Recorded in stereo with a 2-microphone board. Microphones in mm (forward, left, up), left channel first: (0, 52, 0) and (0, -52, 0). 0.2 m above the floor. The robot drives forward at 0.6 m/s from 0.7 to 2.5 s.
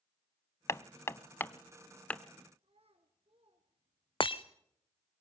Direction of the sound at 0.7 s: 25° left (ahead or behind).